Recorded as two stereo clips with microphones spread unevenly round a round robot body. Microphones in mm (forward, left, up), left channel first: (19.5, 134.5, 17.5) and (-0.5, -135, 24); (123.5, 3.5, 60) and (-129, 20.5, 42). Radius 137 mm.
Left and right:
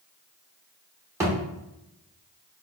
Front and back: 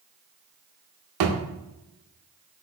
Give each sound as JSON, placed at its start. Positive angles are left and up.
{"t": 1.2, "sound": "a thud", "azimuth_deg": -175, "distance_m": 0.7}